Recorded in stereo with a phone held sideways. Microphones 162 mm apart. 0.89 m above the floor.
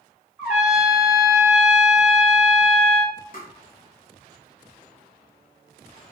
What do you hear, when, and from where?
0.4 s a trumpet: 10° right (ahead or behind), 1.9 m
3.3 s tapping: 55° left (ahead or behind), 1.0 m